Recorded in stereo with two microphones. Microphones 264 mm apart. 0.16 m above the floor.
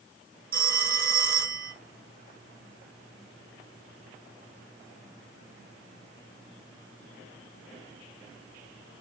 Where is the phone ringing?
35° right (ahead or behind), 1.4 m.